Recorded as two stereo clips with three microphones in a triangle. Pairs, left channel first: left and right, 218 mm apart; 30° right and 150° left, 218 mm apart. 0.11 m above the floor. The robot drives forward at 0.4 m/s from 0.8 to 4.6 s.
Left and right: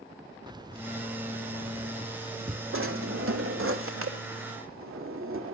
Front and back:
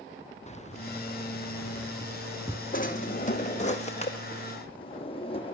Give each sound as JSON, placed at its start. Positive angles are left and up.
{"t": 0.5, "sound": "keys jangling", "azimuth_deg": -35, "distance_m": 0.8}
{"t": 2.7, "sound": "a drawer", "azimuth_deg": -80, "distance_m": 3.0}